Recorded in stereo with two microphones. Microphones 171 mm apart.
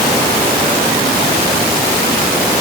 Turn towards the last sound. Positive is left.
No sound to turn to.